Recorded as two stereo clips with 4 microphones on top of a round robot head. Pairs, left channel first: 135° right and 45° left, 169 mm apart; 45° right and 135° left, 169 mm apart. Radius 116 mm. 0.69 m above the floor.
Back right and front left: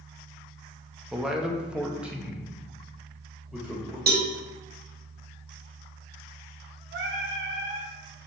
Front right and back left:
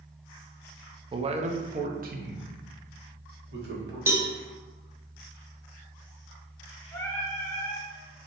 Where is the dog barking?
No dog barking in this recording.